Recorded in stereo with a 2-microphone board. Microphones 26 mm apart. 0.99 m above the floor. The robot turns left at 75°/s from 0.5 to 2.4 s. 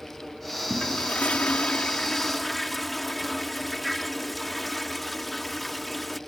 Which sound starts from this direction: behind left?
A toilet flushing, at 0.7 s.